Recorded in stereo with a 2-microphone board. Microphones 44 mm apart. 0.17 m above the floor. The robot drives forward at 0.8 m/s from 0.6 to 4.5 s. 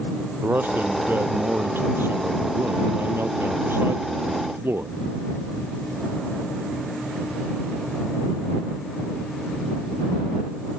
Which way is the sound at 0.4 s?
50° right (ahead or behind).